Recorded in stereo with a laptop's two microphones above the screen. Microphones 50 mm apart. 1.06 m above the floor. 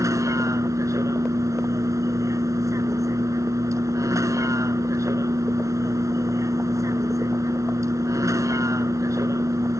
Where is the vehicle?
80° right.